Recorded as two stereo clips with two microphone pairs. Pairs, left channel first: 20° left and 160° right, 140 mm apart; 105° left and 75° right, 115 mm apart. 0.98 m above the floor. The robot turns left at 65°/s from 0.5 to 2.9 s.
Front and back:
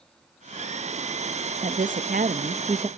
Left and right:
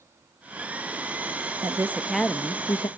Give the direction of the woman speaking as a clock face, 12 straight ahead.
4 o'clock.